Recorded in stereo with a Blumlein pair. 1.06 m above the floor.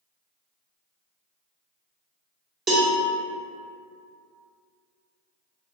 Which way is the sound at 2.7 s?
15° right.